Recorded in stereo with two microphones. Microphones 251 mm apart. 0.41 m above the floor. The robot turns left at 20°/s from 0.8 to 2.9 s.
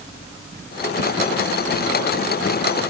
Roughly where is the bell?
No bell in this recording.